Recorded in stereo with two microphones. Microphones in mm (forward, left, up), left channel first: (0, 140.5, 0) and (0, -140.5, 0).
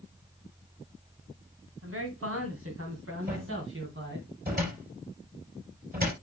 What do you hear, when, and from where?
1.8 s a man speaking: 55° right (ahead or behind), 2 m; by 4.3 s 45° right (ahead or behind), 3 m
3.3 s a cupboard door: 35° right (ahead or behind), 4.5 m